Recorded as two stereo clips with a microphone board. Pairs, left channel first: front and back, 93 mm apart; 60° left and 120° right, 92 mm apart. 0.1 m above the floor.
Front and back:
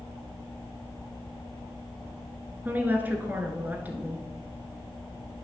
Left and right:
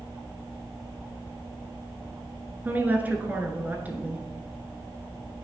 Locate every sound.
2.6 s a woman speaking: 150° right, 1.1 m